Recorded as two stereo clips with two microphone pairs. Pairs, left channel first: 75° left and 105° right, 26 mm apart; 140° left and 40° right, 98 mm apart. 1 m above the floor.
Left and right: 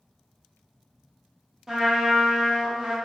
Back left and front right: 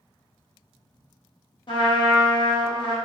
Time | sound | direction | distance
1.7 | a trumpet | 175° left | 0.7 m